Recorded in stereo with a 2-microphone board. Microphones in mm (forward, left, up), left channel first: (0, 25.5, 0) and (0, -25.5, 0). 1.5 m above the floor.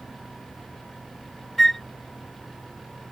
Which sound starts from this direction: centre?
A flute, at 1.6 s.